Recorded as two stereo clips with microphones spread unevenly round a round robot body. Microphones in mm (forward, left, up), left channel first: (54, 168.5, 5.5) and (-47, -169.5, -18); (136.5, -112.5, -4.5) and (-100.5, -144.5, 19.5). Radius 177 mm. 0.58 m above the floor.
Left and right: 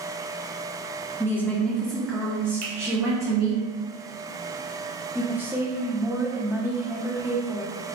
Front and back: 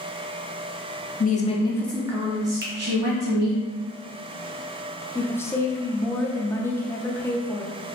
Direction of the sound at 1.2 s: 10° right.